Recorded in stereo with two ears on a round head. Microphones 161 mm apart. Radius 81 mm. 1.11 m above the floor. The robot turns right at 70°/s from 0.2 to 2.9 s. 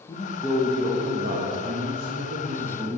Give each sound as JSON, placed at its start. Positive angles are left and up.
{"t": 0.1, "sound": "a man speaking", "azimuth_deg": 155, "distance_m": 1.4}